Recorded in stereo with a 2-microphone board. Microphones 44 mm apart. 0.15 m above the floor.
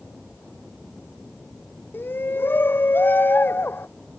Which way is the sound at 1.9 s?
55° left (ahead or behind).